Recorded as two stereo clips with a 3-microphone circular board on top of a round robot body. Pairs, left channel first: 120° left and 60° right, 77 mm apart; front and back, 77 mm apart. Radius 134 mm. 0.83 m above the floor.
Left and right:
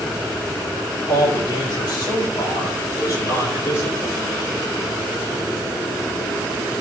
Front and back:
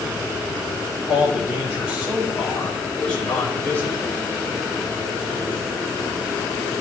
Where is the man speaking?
105° left, 5.5 m; by 4.2 s 60° left, 4 m.